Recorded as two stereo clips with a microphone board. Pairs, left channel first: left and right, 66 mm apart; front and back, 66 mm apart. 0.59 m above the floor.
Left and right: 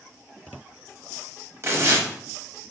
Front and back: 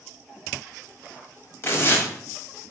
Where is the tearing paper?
50° right, 0.6 m.